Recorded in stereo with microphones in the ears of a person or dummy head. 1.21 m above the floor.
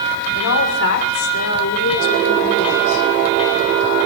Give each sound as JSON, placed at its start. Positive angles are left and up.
{"t": 0.3, "sound": "a woman speaking", "side_deg": 75, "distance_m": 3.0}